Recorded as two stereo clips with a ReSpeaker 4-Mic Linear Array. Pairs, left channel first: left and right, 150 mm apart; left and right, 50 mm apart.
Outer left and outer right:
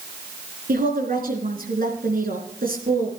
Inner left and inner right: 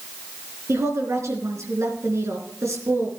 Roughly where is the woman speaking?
Right.